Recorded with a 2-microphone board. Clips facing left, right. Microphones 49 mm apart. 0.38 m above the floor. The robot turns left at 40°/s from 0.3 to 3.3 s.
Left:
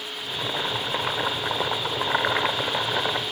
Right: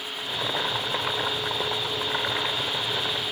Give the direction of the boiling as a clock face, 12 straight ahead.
5 o'clock.